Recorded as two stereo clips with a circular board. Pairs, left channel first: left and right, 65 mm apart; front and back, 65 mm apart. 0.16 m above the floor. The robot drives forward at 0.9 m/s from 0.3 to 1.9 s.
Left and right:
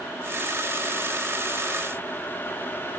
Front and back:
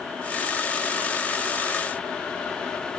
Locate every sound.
Only background noise.